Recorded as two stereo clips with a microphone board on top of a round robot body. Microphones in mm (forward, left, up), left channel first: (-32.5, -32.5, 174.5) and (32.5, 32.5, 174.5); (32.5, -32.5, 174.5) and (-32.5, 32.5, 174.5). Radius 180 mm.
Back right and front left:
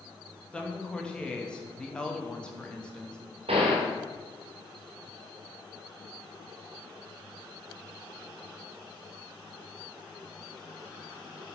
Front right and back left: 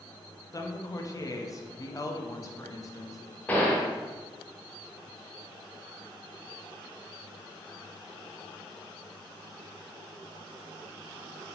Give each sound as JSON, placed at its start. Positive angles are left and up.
{"t": 0.5, "sound": "a woman speaking", "azimuth_deg": -60, "distance_m": 1.1}
{"t": 3.5, "sound": "a gunshot", "azimuth_deg": 30, "distance_m": 0.8}